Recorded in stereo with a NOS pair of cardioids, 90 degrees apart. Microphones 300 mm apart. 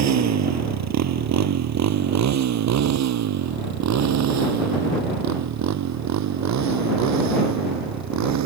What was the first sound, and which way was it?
A motorcycle, 60° right.